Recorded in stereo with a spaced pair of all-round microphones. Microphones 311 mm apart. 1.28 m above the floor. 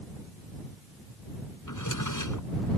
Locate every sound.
1.7 s a drawer: 80° left